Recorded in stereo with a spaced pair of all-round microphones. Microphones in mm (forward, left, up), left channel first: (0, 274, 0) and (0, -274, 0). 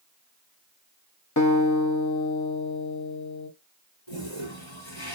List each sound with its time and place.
1.4 s a guitar: 35° left (ahead or behind), 0.7 m
4.1 s a toilet flushing: 55° left (ahead or behind), 2.5 m